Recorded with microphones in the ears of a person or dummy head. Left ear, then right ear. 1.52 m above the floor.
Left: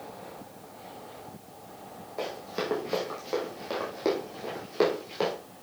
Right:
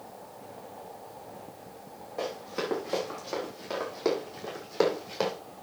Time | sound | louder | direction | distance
2.2 | running footsteps | even | 5° left (ahead or behind) | 5.5 m